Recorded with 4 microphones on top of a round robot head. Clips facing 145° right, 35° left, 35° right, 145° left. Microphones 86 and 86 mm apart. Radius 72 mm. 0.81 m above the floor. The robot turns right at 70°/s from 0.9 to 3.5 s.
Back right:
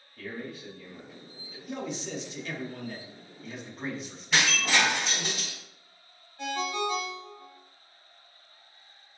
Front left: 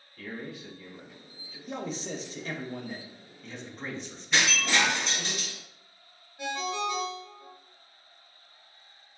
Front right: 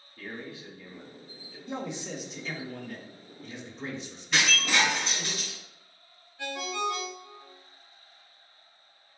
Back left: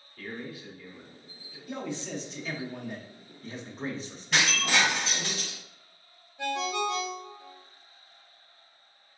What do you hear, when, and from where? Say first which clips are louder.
0.2 s a man speaking: back right 1 dB, back left 1 dB; 100° right, 1.7 m; by 1.6 s 55° right, 1.7 m
1.7 s a man speaking: even, even; 5° left, 0.9 m; by 5.3 s 130° left, 0.9 m
4.3 s breaking glass: even, even; straight behind, 1.9 m
6.4 s a ringtone: back right 1 dB, back left 3 dB; 115° left, 1.8 m